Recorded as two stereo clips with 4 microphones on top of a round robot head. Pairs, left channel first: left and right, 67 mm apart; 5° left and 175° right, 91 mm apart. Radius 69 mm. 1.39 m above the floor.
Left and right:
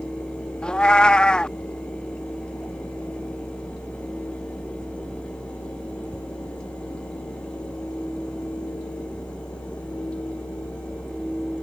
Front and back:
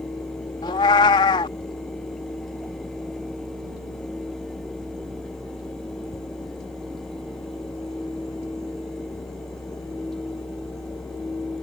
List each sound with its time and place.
0.6 s a cat meowing: 15° left